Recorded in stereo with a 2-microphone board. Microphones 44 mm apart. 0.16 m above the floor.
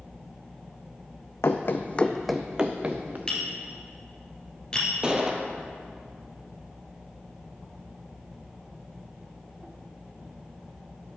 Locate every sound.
1.4 s running footsteps: 75° left (ahead or behind), 0.7 m; by 3.2 s 35° right (ahead or behind), 1.1 m
3.3 s tapping: 20° left (ahead or behind), 1.6 m
5.0 s a gunshot: 20° right (ahead or behind), 0.8 m